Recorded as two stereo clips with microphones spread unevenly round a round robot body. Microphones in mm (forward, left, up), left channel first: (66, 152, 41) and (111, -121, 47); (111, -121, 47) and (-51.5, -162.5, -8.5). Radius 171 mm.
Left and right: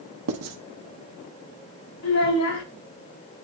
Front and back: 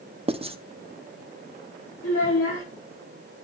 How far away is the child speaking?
About 4.5 m.